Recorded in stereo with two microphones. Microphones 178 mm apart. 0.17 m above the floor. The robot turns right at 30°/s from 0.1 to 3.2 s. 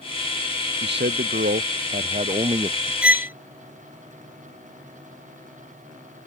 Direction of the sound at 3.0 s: 5° right (ahead or behind).